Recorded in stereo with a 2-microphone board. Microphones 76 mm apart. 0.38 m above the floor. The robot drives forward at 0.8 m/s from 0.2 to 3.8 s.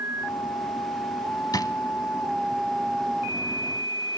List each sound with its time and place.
1.5 s a drawer: 60° left (ahead or behind), 1.1 m; by 1.7 s 55° left (ahead or behind), 1.2 m